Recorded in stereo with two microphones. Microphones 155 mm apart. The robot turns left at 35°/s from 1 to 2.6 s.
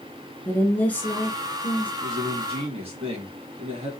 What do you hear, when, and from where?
0.5 s a woman speaking: 15° left, 1.4 m; by 1.9 s 15° right, 1.4 m
2.0 s a man speaking: 45° right (ahead or behind), 2 m; by 3.9 s 40° right (ahead or behind), 2 m